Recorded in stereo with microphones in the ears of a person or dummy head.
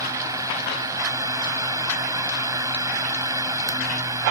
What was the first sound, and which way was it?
A fan, 15° right (ahead or behind).